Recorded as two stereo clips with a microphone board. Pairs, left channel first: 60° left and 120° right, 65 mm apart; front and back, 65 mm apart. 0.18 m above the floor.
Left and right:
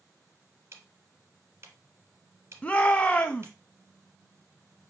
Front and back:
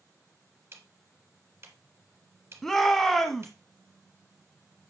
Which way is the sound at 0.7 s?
150° right.